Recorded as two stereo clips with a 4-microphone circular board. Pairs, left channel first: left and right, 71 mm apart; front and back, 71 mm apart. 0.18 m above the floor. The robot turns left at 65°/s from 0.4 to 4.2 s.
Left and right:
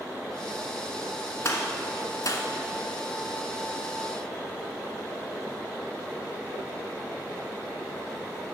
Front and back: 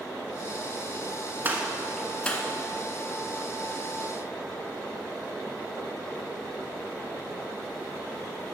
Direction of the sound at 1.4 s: 130° left.